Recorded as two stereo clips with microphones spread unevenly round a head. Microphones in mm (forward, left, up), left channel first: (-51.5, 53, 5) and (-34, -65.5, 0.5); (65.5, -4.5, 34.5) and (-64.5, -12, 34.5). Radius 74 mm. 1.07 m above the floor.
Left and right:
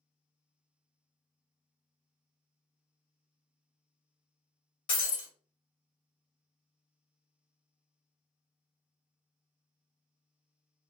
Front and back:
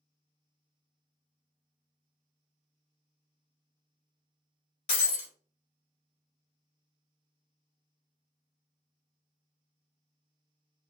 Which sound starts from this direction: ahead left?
Breaking glass, at 4.9 s.